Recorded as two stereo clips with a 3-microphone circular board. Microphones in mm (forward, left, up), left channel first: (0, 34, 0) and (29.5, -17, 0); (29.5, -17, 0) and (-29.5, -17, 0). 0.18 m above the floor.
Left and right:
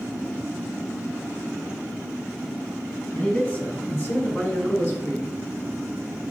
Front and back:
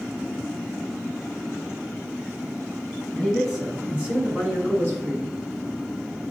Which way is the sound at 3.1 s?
85° left.